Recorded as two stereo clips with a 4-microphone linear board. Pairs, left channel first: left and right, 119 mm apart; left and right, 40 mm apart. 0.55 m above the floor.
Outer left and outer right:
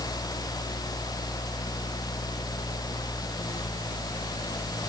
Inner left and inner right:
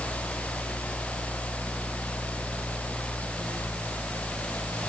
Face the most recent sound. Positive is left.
No sound to turn to.